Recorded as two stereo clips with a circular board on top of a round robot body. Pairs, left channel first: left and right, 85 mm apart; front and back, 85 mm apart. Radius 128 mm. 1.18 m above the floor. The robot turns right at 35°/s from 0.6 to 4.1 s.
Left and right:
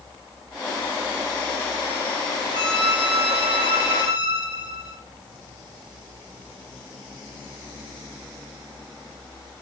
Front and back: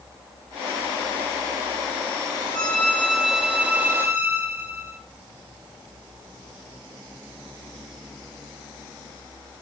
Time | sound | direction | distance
2.5 | a violin | 70° left | 1.8 m